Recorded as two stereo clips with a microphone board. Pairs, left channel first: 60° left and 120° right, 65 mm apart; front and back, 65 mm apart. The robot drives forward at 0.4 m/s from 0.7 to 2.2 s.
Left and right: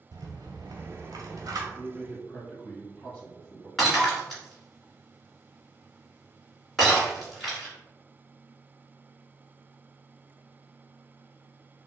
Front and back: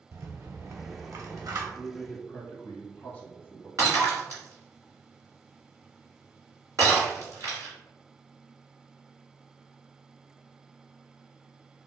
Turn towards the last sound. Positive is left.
turn(degrees=145)